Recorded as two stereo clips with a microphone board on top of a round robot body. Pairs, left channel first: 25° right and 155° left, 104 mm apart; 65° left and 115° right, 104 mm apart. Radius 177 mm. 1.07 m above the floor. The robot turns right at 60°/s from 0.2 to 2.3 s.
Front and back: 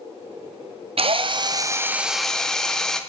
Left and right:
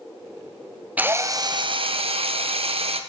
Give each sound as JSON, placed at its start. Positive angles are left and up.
{"t": 1.0, "sound": "a drill", "azimuth_deg": 175, "distance_m": 1.2}